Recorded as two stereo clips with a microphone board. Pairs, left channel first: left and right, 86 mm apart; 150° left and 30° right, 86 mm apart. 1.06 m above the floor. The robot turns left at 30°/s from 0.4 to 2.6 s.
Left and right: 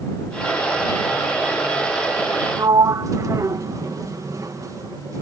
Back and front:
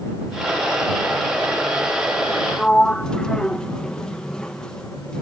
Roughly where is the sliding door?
Behind right.